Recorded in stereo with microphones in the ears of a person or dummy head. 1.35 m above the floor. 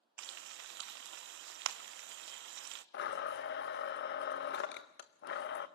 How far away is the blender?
About 0.7 m.